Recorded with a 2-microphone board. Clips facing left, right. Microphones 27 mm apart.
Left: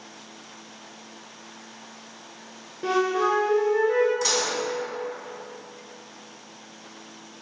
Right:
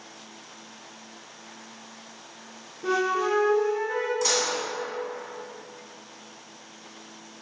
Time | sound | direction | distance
2.8 | a flute | 60° left (ahead or behind) | 0.7 m
4.2 | dishes clattering | 10° left (ahead or behind) | 0.8 m